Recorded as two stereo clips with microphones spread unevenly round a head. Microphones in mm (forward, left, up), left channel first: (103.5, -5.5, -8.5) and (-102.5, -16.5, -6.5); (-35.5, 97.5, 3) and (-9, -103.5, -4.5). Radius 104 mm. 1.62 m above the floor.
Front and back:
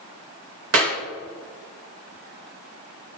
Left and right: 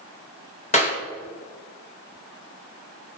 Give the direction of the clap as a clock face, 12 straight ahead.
7 o'clock.